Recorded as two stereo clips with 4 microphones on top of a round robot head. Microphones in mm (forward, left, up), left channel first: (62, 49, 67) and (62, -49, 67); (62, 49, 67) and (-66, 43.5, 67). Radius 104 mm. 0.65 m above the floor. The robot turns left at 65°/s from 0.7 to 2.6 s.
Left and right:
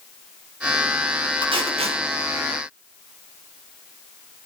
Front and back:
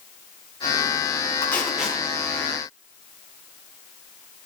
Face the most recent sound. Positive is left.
turn(degrees=-145)